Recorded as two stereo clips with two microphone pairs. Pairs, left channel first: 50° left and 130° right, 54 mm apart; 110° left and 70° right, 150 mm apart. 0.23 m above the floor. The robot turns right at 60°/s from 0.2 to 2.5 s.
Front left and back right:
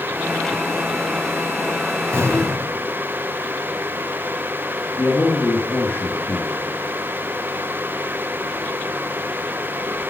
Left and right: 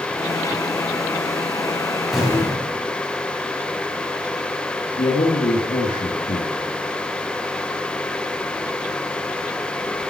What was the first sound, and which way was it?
An explosion, 160° right.